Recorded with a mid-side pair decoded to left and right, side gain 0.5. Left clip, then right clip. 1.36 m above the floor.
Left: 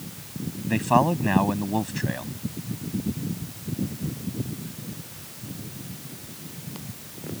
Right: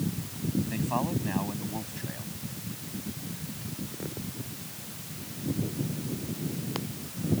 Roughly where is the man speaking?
Ahead left.